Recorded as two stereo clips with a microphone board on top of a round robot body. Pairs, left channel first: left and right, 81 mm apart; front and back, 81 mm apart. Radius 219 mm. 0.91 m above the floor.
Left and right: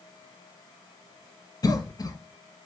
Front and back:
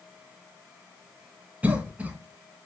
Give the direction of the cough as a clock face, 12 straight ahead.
8 o'clock.